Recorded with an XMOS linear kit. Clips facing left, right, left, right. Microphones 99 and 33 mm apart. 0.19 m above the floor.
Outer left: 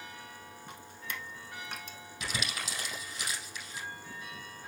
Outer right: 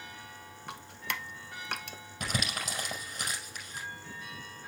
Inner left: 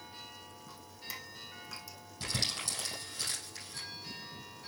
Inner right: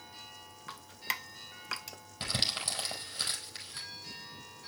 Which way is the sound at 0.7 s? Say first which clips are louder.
Outer right 6 dB, inner right 10 dB; 70° right (ahead or behind).